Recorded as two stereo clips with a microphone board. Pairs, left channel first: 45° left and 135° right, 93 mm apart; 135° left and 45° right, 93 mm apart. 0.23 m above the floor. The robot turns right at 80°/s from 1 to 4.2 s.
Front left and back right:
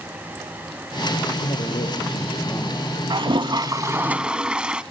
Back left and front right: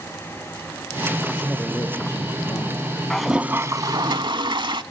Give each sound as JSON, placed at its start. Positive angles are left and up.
{"t": 1.4, "sound": "a man speaking", "azimuth_deg": 20, "distance_m": 4.0}
{"t": 3.1, "sound": "a toilet flushing", "azimuth_deg": -145, "distance_m": 0.6}